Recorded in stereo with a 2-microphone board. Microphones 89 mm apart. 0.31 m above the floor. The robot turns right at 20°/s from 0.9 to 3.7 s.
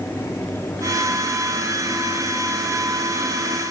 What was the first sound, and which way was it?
Only background noise.